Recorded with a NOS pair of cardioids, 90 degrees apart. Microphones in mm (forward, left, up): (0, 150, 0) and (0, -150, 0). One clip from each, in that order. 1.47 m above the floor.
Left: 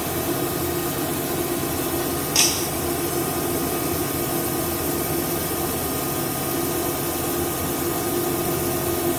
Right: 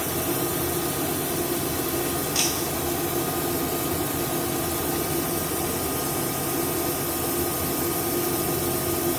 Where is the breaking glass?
40° left.